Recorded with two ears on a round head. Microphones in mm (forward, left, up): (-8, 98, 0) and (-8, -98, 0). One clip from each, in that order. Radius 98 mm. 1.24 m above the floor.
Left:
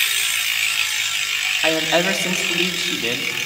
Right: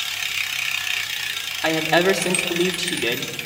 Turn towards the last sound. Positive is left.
turn(degrees=45)  # may be behind; listen again after turning